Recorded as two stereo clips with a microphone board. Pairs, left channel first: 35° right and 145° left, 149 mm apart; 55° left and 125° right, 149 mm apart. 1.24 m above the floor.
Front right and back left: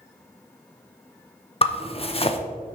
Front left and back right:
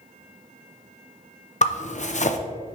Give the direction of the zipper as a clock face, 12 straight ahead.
11 o'clock.